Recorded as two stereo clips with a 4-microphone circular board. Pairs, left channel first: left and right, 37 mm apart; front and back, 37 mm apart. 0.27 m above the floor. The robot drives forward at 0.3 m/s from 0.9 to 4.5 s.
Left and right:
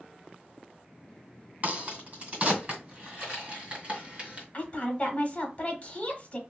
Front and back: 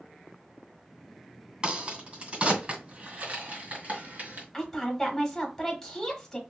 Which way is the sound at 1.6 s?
125° right.